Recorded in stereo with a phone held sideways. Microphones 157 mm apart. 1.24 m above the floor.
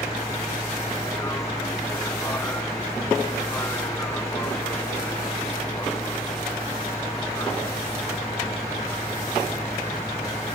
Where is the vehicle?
15° left (ahead or behind).